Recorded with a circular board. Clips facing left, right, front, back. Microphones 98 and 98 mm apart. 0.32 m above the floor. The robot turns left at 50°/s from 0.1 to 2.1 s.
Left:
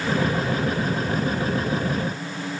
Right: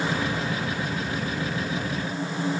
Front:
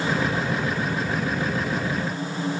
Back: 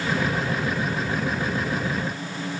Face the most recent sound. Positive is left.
No sound to turn to.